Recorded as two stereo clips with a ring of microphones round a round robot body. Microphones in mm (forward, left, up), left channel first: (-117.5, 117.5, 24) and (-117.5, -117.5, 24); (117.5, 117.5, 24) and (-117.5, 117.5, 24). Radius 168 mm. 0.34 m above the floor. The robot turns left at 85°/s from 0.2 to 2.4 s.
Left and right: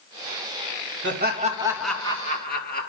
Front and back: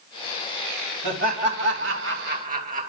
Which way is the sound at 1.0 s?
110° right.